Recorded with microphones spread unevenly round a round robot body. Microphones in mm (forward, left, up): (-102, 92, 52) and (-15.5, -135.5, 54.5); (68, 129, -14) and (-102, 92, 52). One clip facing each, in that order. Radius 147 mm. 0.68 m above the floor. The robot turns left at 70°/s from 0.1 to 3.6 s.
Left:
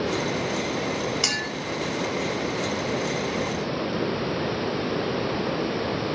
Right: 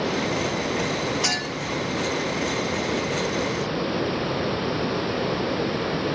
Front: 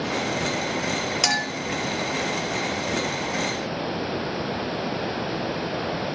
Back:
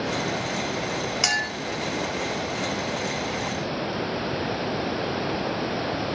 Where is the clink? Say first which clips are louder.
Right 2 dB, front 3 dB; 55° left, 1.1 m; by 1.5 s 35° left, 1.1 m.